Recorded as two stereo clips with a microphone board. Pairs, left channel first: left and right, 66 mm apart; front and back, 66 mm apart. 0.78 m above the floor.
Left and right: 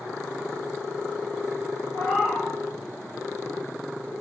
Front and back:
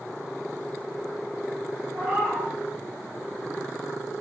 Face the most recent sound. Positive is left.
turn(degrees=80)